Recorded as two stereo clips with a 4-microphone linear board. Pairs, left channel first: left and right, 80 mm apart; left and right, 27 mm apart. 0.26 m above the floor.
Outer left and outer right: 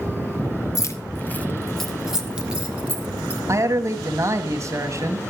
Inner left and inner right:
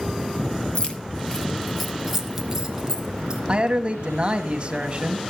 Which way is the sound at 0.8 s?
45° left (ahead or behind).